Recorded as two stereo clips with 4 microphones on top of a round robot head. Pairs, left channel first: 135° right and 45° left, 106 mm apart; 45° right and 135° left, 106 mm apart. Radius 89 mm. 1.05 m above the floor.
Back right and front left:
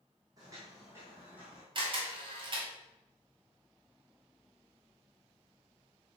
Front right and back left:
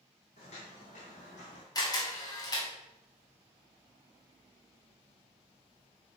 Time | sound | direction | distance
0.4 | footsteps | 15° right | 2.5 m
1.8 | a camera shutter | 10° left | 2 m